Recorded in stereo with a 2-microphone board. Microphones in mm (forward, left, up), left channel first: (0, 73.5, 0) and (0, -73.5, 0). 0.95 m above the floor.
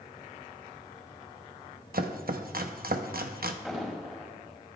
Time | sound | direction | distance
1.9 | chopping | 80° right | 0.8 m
3.6 | an explosion | centre (ahead or behind) | 4.5 m